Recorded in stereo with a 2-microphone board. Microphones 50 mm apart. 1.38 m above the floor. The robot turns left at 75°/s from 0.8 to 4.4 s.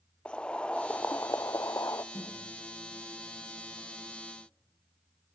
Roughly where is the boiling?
Behind.